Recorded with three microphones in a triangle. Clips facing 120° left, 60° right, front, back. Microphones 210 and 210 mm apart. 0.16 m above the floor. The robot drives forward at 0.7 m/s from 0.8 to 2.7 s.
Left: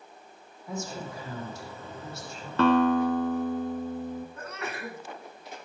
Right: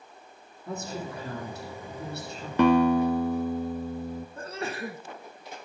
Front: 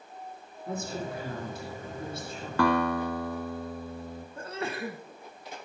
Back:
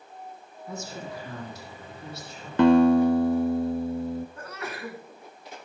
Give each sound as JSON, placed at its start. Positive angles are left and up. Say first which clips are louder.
{"t": 0.7, "sound": "a woman speaking", "louder": "right 1 dB, front 3 dB", "azimuth_deg": -35, "distance_m": 8.0}
{"t": 2.6, "sound": "a guitar", "louder": "right 2 dB, back 10 dB", "azimuth_deg": -125, "distance_m": 0.8}
{"t": 4.4, "sound": "a sneeze", "louder": "right 3 dB, front 3 dB", "azimuth_deg": -40, "distance_m": 1.3}